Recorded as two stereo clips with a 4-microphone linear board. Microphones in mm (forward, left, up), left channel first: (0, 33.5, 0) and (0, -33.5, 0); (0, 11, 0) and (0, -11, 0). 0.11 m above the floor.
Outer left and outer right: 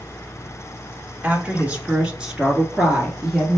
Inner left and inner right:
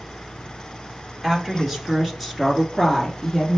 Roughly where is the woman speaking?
Right.